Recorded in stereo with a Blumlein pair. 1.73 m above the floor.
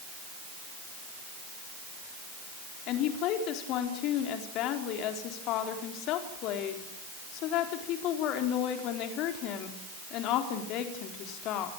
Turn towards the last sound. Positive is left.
turn(degrees=40)